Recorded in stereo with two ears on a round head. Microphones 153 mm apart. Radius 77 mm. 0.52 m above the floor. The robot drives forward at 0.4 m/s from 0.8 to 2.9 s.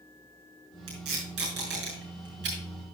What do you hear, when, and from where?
0.9 s tape being pulled: 65° right (ahead or behind), 5.5 m; by 2.6 s 75° right (ahead or behind), 5.5 m